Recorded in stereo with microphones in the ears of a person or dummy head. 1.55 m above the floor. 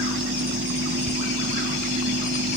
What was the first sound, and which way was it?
A fan, 50° right (ahead or behind).